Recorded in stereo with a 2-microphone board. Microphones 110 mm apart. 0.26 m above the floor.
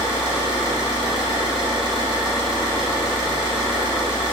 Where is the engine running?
45° right (ahead or behind), 1.3 m.